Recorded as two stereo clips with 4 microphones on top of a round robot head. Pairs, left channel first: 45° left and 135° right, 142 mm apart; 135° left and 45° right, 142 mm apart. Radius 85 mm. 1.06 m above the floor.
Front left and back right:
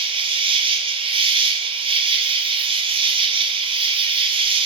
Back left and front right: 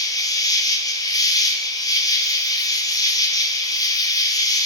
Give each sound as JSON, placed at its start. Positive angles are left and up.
{"t": 0.0, "sound": "an insect", "azimuth_deg": -170, "distance_m": 1.3}